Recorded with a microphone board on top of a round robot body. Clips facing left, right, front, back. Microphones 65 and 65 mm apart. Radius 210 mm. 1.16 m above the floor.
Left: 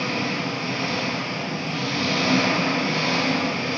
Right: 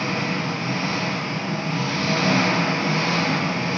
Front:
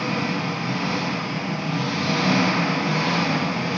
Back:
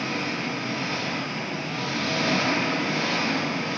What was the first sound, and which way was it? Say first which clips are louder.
An engine running: right 1 dB, front 4 dB; 25° right.